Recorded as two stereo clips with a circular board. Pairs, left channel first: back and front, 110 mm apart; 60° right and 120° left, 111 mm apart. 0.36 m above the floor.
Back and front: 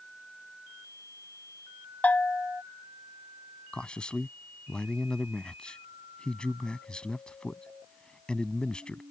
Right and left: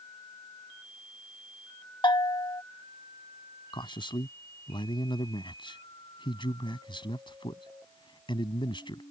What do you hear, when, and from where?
2.0 s a bell: 105° right
3.7 s a man speaking: 100° right